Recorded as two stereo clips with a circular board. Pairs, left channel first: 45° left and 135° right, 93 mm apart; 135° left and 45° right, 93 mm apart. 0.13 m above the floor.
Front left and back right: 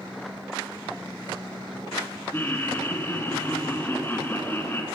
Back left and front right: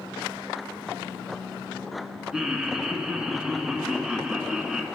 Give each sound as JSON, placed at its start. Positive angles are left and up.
{"t": 2.3, "sound": "laughter", "azimuth_deg": 25, "distance_m": 1.1}